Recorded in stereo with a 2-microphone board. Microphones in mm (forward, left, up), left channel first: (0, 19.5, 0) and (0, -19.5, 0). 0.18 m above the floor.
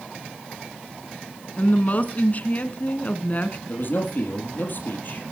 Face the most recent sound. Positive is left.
turn(degrees=55)  # may be behind; listen again after turning